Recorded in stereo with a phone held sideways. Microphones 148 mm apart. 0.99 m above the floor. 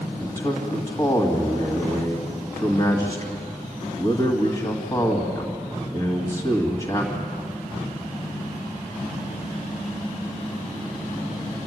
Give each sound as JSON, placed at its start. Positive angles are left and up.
{"t": 0.2, "sound": "a man speaking", "side_deg": 25, "distance_m": 2.0}